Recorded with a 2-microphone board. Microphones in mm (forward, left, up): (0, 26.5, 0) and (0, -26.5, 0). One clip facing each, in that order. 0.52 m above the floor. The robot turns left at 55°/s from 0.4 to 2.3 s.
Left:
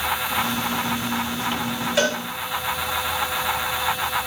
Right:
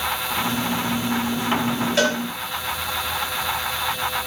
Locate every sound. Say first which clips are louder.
2.0 s a cowbell: even; 5° left (ahead or behind), 2.5 m; by 2.2 s 5° right (ahead or behind), 2.5 m